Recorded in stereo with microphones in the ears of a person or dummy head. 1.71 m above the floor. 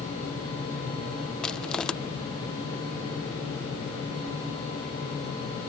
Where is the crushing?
5° left (ahead or behind).